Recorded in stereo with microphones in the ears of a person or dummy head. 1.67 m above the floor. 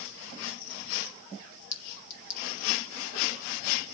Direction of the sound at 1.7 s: 65° left (ahead or behind).